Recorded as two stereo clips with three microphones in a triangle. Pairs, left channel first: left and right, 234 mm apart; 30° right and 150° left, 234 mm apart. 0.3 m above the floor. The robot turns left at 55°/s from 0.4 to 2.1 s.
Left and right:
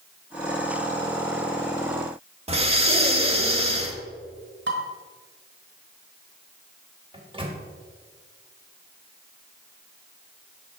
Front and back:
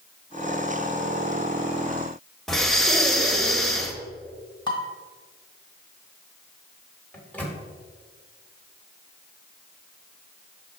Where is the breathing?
120° right, 0.6 m.